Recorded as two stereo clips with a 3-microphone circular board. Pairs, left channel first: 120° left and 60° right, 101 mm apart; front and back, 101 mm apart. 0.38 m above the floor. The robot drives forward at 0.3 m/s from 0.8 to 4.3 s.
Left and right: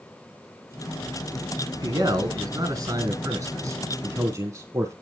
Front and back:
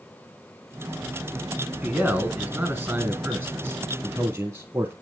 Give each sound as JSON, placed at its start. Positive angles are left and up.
{"t": 1.8, "sound": "a man speaking", "azimuth_deg": -110, "distance_m": 3.0}